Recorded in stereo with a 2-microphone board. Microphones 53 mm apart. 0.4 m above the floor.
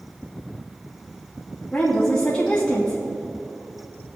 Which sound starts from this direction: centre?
A woman speaking, at 1.7 s.